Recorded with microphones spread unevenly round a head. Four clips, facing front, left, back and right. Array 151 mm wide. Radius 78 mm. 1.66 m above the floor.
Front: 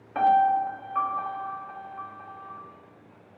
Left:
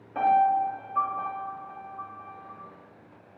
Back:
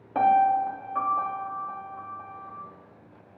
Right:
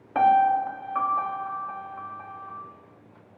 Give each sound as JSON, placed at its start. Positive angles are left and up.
{"t": 0.1, "sound": "a piano", "azimuth_deg": -130, "distance_m": 1.2}